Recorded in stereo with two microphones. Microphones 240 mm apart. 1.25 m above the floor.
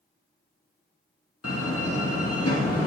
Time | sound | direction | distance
1.4 | a door slam | 80° left | 1.7 m